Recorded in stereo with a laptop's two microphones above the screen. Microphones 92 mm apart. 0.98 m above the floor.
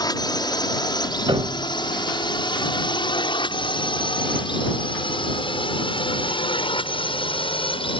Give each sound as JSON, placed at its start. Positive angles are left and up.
{"t": 0.0, "sound": "a drone", "side_deg": 50}
{"t": 1.3, "sound": "a piano", "side_deg": -65}